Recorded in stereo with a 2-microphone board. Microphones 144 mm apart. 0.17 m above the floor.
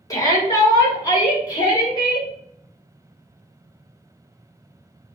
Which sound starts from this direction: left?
A shout, at 0.1 s.